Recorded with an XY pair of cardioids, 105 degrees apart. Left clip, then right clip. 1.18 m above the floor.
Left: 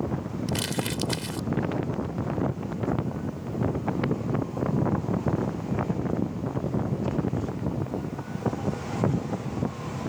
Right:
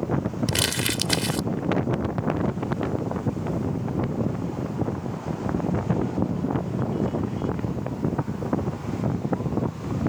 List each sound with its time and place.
0.5 s crumpling: 45° right